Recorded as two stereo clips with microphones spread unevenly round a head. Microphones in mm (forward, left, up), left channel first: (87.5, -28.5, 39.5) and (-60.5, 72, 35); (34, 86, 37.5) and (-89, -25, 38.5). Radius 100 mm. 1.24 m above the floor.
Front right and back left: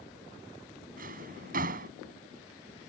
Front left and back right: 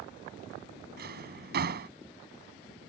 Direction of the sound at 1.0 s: 165° right.